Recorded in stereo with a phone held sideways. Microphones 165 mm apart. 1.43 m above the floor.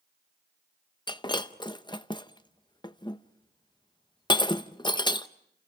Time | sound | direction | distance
1.1 | breaking glass | 25° left (ahead or behind) | 0.7 m